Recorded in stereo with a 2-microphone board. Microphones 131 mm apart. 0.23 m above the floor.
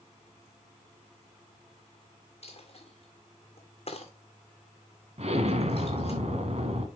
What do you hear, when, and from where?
2.4 s a dropped coin: 50° left (ahead or behind), 1.7 m
5.2 s an explosion: 55° right (ahead or behind), 1.5 m